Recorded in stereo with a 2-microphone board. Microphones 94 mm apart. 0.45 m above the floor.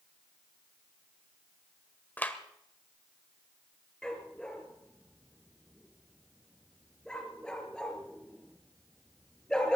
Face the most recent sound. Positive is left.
turn(degrees=10)  # may be behind; listen again after turning